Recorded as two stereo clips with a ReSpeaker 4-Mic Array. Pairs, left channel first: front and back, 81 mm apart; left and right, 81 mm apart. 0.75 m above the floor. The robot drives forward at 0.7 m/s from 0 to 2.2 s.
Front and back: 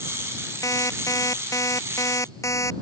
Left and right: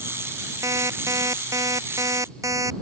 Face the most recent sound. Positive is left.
turn(degrees=-45)